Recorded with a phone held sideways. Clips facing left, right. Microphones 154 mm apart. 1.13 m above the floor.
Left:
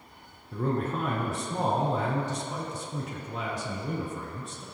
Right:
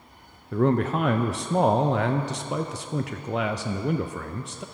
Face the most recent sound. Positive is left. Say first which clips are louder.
# right 7 dB
turn(degrees=-75)  # may be behind; listen again after turning